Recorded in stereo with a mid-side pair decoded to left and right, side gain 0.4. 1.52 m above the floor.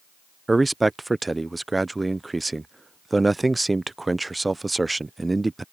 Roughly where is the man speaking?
Ahead.